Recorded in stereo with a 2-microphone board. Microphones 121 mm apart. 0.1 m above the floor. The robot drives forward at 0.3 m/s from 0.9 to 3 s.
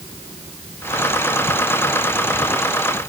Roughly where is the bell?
No bell in this recording.